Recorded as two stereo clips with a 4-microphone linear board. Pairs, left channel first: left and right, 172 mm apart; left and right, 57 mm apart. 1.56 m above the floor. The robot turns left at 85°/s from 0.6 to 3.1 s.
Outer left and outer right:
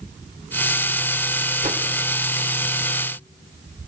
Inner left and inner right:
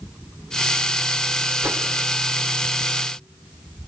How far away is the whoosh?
About 1.5 m.